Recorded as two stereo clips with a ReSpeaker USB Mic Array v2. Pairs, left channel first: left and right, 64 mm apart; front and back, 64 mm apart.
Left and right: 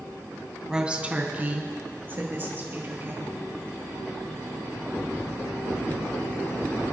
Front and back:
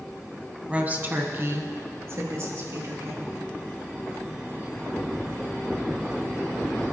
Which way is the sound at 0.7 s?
155° right.